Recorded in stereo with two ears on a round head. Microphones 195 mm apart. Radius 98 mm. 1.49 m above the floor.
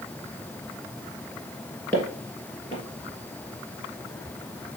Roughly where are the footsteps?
Centre.